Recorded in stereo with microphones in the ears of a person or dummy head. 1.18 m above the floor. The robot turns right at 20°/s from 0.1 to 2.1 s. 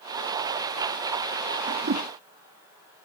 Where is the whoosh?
60° right (ahead or behind).